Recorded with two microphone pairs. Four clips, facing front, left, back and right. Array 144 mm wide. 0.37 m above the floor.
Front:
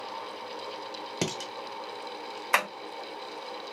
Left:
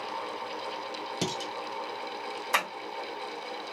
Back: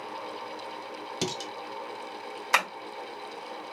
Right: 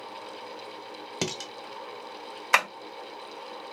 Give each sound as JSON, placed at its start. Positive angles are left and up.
{"t": 1.2, "sound": "dishes clattering", "azimuth_deg": -55, "distance_m": 0.7}
{"t": 2.5, "sound": "tapping", "azimuth_deg": -90, "distance_m": 1.4}